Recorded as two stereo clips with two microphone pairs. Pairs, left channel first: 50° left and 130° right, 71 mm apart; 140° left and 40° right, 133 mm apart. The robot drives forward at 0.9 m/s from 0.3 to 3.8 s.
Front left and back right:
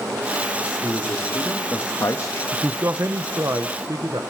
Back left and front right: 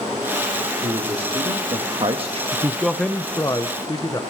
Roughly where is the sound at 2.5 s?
Right.